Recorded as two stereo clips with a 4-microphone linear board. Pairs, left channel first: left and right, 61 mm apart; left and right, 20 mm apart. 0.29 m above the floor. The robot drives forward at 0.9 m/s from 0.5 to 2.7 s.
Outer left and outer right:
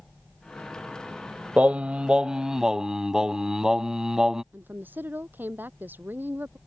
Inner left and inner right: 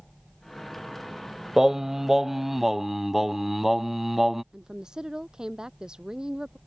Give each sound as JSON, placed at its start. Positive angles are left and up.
{"t": 1.6, "sound": "singing", "side_deg": -20}
{"t": 4.5, "sound": "a woman speaking", "side_deg": -30}